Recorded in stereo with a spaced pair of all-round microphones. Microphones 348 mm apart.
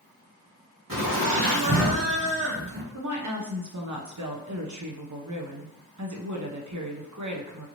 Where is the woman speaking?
55° right (ahead or behind), 0.8 m.